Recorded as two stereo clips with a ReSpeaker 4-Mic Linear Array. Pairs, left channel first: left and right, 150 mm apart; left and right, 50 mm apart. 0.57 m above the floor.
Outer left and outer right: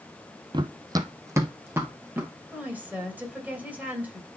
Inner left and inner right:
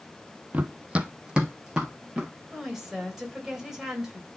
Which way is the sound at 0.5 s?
30° right (ahead or behind).